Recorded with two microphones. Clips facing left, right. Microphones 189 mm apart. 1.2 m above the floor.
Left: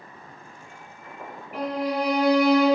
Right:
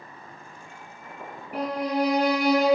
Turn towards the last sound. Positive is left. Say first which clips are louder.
# even
turn(degrees=-40)  # may be behind; listen again after turning